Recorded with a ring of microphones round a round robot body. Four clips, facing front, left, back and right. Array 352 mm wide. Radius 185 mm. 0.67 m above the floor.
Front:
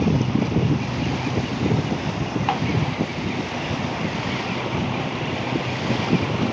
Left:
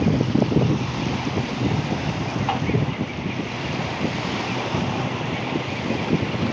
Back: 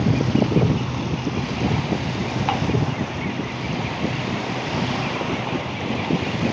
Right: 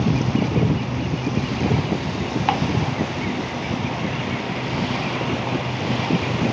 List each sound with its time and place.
2.5 s ticking: 90° right, 1.2 m